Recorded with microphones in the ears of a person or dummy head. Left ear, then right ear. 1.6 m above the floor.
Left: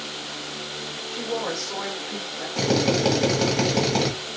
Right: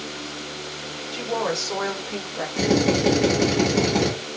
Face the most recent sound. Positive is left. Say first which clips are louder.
# right 1 dB
turn(degrees=60)  # may be behind; listen again after turning